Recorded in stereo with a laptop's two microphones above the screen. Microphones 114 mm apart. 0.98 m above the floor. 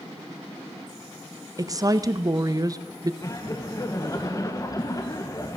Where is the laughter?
30° left (ahead or behind), 0.9 m.